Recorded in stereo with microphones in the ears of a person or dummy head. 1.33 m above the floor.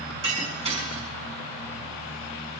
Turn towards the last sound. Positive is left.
turn(degrees=-35)  # may be behind; listen again after turning